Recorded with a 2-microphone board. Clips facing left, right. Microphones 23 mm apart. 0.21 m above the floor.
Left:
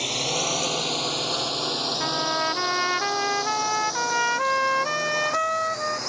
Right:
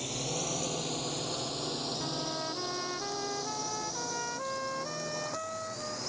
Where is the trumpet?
65° left (ahead or behind).